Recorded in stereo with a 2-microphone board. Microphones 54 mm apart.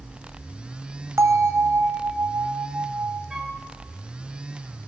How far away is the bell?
About 1.8 m.